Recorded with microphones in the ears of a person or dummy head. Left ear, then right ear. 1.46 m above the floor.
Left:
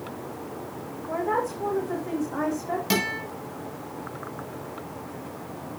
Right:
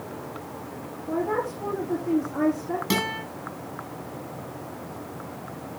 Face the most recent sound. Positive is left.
turn(degrees=15)  # may be behind; listen again after turning